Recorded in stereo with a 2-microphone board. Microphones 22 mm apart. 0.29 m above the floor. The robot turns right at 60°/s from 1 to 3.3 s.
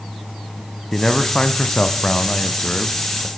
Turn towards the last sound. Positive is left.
turn(degrees=165)